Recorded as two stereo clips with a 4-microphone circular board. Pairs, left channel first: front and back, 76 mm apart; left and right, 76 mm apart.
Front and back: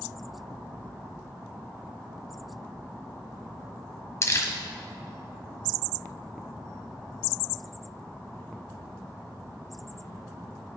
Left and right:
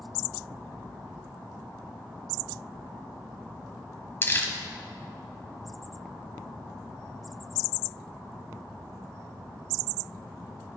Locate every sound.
4.2 s crumpling: 40° left, 1.0 m